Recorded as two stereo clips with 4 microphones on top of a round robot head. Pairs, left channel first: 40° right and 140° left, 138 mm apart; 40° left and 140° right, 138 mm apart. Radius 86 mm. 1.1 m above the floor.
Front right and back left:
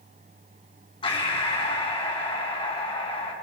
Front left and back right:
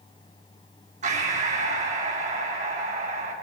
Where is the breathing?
100° right, 4 m.